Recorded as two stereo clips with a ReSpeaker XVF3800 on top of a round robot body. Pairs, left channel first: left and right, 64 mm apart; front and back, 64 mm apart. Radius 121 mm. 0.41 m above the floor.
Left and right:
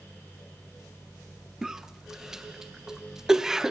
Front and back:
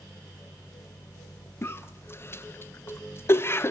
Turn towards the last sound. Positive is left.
turn(degrees=-10)